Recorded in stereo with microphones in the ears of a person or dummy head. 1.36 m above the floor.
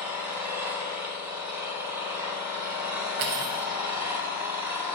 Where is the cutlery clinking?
45° right (ahead or behind), 0.5 m.